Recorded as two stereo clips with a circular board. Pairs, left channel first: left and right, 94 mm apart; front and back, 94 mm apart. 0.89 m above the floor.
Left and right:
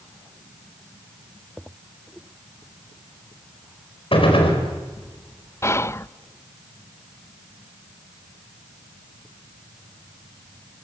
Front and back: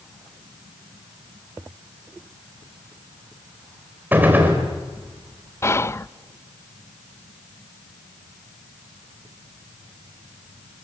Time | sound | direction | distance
4.1 | a gunshot | 110° left | 4 m
5.6 | whispering | 45° left | 0.6 m